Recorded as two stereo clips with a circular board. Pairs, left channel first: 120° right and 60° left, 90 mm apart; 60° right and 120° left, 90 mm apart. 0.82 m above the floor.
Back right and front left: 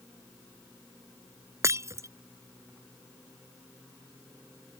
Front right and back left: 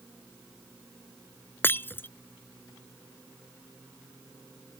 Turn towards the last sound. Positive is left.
turn(degrees=5)